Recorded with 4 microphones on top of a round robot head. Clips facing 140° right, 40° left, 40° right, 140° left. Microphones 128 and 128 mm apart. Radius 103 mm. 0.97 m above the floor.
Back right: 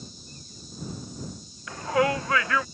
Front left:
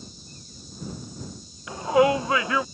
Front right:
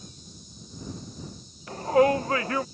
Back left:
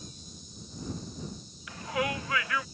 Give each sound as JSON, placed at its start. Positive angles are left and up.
{"t": 1.7, "sound": "a shout", "azimuth_deg": -25}